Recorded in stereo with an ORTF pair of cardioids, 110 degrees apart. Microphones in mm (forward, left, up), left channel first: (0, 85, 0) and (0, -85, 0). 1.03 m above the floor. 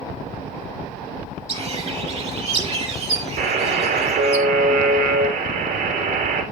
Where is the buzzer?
60° right, 3.5 m.